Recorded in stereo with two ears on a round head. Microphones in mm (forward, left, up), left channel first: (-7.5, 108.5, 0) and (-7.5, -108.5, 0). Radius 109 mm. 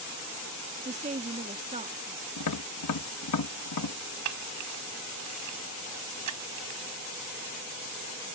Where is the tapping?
80° left.